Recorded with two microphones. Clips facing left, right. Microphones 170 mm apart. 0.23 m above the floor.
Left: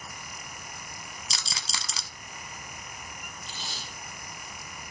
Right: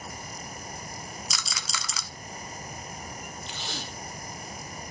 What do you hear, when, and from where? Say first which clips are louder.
1.3 s a rattle: right 2 dB; 30° left (ahead or behind), 0.6 m
3.5 s tape being pulled: right 4 dB; 75° right (ahead or behind), 0.7 m